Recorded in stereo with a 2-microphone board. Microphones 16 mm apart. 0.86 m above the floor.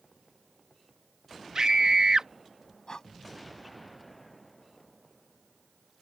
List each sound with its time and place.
1.6 s a scream: 65° right (ahead or behind)
2.9 s breathing: 65° left (ahead or behind)